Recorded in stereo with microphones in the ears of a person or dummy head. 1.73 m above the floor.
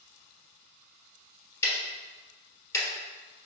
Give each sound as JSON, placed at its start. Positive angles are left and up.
{"t": 1.6, "sound": "ticking", "side_deg": 20, "distance_m": 1.3}